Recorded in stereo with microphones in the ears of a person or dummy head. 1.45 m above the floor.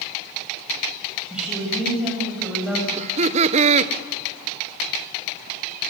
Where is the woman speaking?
Centre (ahead or behind), 8 m.